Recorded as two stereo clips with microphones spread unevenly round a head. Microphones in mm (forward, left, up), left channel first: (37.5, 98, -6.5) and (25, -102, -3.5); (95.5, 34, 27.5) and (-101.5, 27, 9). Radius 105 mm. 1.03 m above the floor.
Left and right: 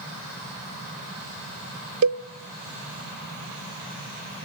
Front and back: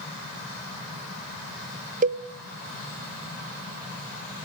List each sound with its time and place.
2.0 s a cowbell: 125° right, 0.7 m